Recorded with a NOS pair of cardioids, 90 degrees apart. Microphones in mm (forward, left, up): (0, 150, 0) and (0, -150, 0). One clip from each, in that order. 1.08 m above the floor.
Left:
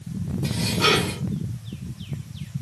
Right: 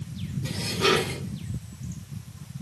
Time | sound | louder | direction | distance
0.4 | dishes clattering | left 3 dB | 55° left | 6.5 m